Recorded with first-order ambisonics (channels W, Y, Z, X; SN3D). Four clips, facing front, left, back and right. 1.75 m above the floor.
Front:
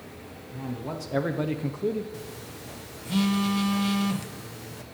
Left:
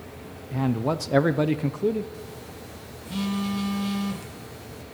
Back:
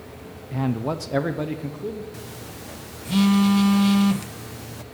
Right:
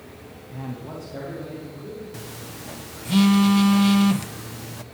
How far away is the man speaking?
About 0.8 m.